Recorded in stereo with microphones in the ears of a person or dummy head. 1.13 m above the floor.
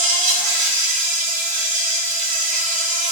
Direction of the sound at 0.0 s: 40° right (ahead or behind).